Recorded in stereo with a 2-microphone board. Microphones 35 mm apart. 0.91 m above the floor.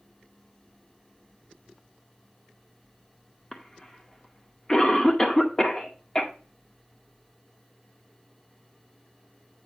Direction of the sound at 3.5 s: 15° left (ahead or behind).